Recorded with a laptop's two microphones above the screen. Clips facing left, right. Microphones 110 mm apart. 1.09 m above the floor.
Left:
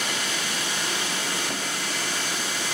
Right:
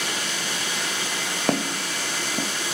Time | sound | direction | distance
1.5 | footsteps | 70° right (ahead or behind) | 3.5 m